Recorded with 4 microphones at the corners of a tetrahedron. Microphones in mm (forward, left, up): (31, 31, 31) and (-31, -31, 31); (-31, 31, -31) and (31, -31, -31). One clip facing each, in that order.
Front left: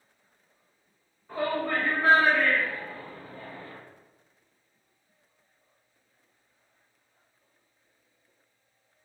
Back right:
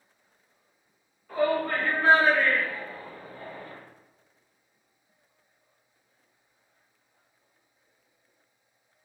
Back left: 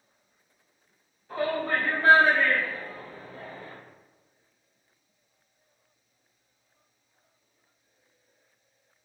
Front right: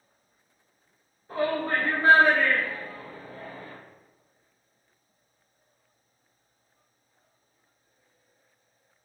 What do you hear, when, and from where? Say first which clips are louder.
1.3 s a shout: back right 3 dB, front right 1 dB; 15° right, 1.3 m; by 3.7 s 170° right, 1.2 m